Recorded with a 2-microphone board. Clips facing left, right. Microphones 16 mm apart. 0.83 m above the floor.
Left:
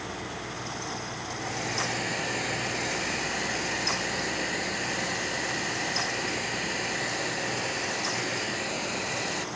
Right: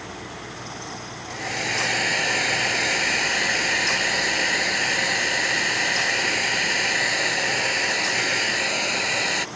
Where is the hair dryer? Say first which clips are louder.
Right 8 dB; 40° right (ahead or behind).